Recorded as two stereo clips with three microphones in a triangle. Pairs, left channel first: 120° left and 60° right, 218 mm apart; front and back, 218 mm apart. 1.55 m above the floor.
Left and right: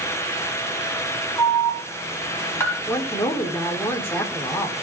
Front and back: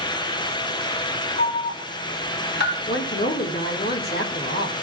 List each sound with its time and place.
1.4 s an alarm: 40° left, 4.5 m
2.9 s a woman speaking: 40° left, 4 m